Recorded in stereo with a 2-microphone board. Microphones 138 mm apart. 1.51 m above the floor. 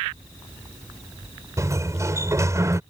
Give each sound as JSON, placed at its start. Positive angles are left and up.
{"t": 1.6, "sound": "a sliding door", "side_deg": -25}